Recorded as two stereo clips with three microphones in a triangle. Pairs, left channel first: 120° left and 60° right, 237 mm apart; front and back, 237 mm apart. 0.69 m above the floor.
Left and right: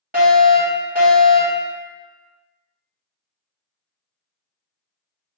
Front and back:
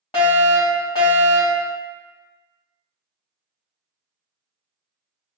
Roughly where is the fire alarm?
Ahead right.